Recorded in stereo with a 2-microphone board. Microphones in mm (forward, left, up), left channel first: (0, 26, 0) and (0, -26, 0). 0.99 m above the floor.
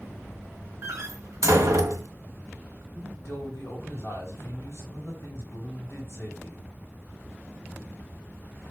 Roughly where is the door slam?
Right.